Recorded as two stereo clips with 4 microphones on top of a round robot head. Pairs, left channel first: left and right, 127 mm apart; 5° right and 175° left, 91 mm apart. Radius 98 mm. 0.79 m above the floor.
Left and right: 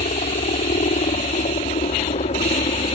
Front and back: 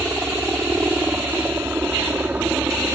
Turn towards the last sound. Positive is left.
turn(degrees=105)